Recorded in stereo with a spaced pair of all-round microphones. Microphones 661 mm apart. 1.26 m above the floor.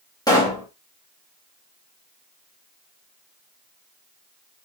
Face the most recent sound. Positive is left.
turn(degrees=5)  # may be behind; listen again after turning